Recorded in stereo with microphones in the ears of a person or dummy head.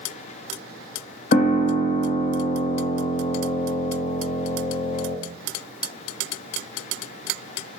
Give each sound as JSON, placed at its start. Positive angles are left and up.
{"t": 1.3, "sound": "a piano", "side_deg": 50, "distance_m": 1.1}